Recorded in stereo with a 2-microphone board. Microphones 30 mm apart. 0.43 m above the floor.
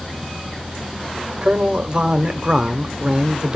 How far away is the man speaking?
About 1.2 m.